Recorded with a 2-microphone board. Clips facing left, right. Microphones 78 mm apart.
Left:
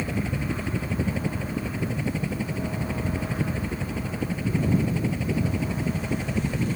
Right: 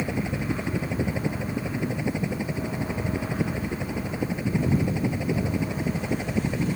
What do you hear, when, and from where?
0.0 s a helicopter: 15° right (ahead or behind)